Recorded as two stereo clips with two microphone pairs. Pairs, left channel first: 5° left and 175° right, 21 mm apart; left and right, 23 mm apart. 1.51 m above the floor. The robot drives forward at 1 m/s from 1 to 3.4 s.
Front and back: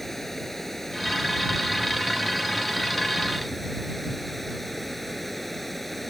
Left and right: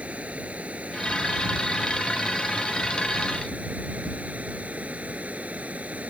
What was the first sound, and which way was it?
Running water, 70° right.